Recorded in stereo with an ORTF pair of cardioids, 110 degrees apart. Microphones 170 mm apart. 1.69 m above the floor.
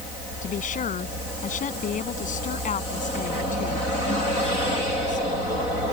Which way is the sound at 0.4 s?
45° left.